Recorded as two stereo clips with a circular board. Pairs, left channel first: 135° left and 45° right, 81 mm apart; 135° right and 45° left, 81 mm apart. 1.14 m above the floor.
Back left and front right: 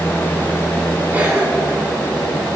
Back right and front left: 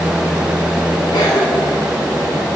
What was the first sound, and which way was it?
A cough, 115° right.